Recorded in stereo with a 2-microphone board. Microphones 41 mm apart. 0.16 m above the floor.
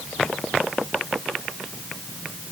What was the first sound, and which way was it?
Only background noise.